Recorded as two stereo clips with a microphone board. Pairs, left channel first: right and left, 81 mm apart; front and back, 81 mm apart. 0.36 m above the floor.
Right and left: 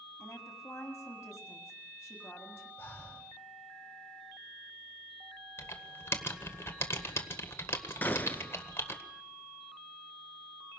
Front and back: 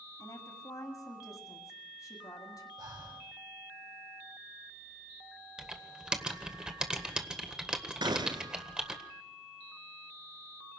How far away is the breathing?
About 5.5 m.